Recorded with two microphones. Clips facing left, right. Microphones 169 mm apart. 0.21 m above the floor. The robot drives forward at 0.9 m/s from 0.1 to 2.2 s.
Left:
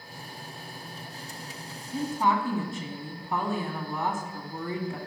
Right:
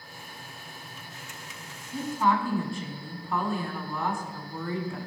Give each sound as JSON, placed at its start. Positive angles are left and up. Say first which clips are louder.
{"t": 1.9, "sound": "a woman speaking", "louder": "even", "side_deg": 20, "distance_m": 1.6}